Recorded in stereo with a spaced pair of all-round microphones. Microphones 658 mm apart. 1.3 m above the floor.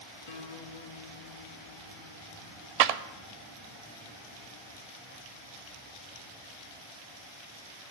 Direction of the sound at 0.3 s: 55° left (ahead or behind).